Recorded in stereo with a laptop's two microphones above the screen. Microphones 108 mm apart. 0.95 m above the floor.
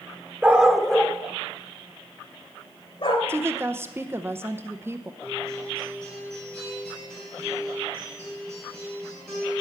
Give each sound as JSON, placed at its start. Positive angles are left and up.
{"t": 0.4, "sound": "a dog barking", "side_deg": -15, "distance_m": 0.8}
{"t": 3.3, "sound": "a woman speaking", "side_deg": -25, "distance_m": 0.7}
{"t": 5.2, "sound": "a guitar", "side_deg": 5, "distance_m": 5.5}